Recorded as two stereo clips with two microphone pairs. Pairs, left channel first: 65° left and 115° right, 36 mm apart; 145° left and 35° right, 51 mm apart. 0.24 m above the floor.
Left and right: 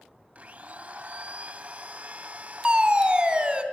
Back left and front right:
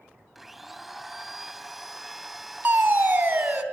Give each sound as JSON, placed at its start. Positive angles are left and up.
{"t": 0.3, "sound": "a blender", "azimuth_deg": -125, "distance_m": 0.7}
{"t": 2.6, "sound": "a fire alarm", "azimuth_deg": -60, "distance_m": 2.5}